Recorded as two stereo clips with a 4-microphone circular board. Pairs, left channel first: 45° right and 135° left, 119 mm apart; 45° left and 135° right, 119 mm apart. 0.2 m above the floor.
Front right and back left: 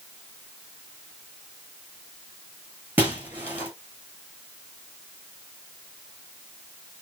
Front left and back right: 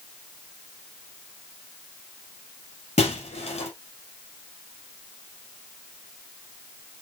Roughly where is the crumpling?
No crumpling in this recording.